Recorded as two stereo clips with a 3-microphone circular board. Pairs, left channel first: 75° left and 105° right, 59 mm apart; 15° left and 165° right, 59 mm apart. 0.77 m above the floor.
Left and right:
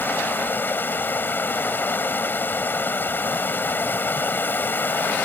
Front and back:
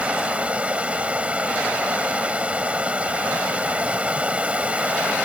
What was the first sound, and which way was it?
Running water, 130° left.